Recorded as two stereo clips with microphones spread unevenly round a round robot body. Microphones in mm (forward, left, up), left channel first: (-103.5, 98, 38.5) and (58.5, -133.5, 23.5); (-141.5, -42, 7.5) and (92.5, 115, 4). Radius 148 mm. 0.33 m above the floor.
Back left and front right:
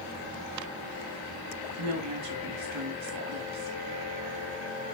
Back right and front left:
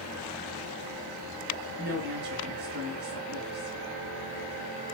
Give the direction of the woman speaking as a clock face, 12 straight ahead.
1 o'clock.